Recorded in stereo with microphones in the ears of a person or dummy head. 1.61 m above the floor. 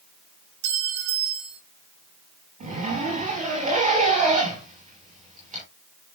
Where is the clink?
55° right (ahead or behind), 1.8 m.